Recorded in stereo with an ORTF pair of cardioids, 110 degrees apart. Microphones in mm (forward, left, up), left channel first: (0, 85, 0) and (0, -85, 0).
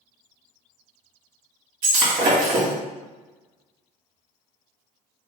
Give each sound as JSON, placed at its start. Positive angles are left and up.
{"t": 1.8, "sound": "breaking glass", "azimuth_deg": -70, "distance_m": 1.6}